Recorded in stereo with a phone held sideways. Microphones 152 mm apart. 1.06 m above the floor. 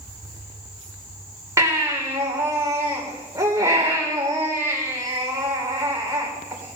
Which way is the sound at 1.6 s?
20° right (ahead or behind).